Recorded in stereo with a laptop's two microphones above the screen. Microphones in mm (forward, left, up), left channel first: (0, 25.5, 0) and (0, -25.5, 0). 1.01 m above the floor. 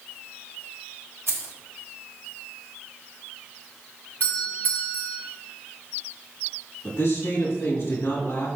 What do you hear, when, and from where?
1.3 s keys jangling: 70° right (ahead or behind), 1.1 m
4.2 s a doorbell: 35° left (ahead or behind), 1.6 m
6.8 s a man speaking: 60° left (ahead or behind), 1.6 m